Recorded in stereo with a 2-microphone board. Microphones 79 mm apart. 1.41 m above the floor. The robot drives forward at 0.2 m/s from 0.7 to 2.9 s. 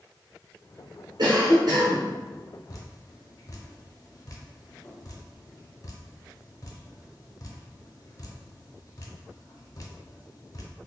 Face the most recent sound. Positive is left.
turn(degrees=45)  # may be behind; listen again after turning